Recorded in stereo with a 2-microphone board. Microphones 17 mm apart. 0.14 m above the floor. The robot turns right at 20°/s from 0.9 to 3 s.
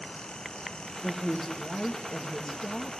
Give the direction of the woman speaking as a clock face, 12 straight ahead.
12 o'clock.